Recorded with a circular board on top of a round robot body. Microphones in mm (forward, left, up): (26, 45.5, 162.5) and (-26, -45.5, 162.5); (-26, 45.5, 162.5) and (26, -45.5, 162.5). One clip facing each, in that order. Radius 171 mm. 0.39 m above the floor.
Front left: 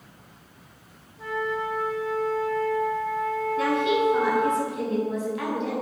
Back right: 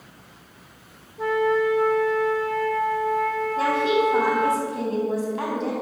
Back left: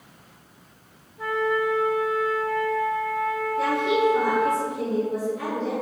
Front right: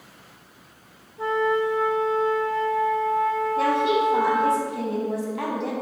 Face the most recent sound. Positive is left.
turn(degrees=-65)